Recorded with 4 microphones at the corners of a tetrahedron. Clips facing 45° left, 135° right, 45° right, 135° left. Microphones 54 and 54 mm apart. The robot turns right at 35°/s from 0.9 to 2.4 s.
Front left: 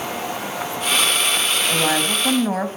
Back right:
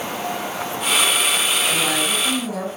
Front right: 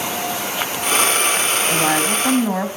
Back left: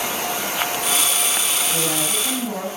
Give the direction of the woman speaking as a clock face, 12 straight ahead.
1 o'clock.